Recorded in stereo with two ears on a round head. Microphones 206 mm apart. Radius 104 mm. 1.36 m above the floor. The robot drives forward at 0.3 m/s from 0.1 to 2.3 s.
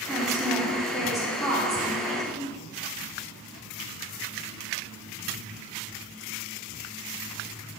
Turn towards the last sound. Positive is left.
turn(degrees=0)  # may be behind; listen again after turning